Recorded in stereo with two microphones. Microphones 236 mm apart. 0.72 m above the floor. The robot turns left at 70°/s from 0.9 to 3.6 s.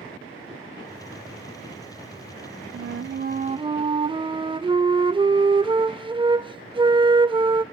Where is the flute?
95° right, 0.5 m; by 7.6 s 155° right, 0.5 m.